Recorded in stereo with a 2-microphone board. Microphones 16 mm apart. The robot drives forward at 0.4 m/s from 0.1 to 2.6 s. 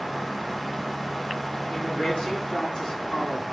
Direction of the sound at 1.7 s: 70° left (ahead or behind).